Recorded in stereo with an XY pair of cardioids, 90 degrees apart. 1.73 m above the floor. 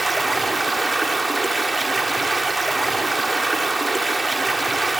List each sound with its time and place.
0.0 s running water: 5° right, 0.9 m